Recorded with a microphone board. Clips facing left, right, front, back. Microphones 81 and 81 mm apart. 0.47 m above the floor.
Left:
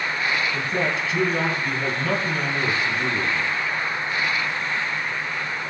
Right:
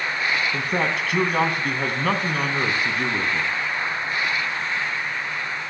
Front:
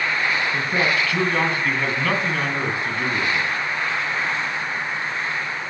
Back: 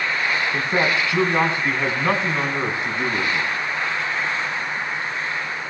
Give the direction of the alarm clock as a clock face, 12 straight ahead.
I don't hear an alarm clock.